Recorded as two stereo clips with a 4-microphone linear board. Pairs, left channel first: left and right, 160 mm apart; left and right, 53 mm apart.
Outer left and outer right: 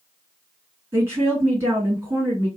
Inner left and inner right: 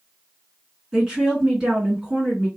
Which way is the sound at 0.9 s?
15° right (ahead or behind).